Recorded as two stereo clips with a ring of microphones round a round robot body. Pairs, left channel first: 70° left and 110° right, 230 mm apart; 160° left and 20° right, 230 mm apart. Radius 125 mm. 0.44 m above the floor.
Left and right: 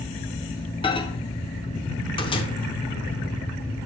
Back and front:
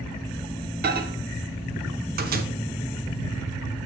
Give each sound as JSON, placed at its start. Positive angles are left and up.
{"t": 0.8, "sound": "a microwave", "azimuth_deg": 5, "distance_m": 0.7}